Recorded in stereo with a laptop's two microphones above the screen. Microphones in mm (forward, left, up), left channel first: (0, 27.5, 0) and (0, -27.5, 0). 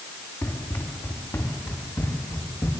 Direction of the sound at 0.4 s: 65° left (ahead or behind).